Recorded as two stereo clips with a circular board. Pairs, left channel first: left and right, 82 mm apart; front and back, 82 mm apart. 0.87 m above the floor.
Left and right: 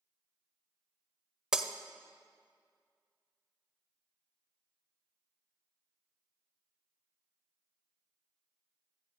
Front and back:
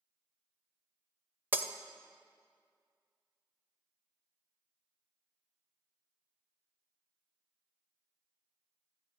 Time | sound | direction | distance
1.5 | breaking glass | 160° right | 0.6 m